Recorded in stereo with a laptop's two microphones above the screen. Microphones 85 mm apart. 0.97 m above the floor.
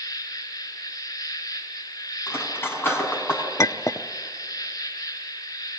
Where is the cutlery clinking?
30° left (ahead or behind), 4.5 m.